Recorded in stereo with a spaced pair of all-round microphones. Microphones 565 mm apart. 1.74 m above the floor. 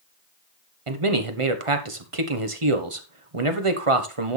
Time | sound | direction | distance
0.9 | a man speaking | 55° right (ahead or behind) | 1.5 m